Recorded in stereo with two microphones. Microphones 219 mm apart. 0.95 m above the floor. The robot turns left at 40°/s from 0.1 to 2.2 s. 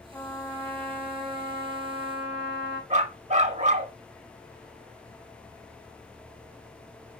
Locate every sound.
0.1 s a trumpet: 5° left, 3 m; by 2.8 s 80° right, 3 m
2.9 s a dog barking: 35° right (ahead or behind), 1.1 m